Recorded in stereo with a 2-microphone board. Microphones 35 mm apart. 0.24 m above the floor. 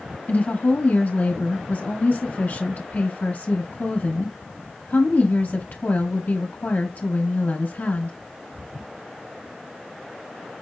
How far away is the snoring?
No snoring in this recording.